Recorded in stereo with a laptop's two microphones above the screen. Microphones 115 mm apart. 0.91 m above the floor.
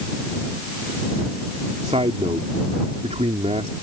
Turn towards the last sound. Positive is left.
turn(degrees=-65)  # may be behind; listen again after turning